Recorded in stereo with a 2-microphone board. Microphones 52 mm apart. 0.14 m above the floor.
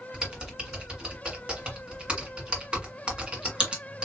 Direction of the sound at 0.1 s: 20° right (ahead or behind).